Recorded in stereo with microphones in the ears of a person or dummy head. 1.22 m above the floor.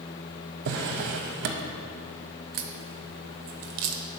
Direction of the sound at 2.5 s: 45° right (ahead or behind).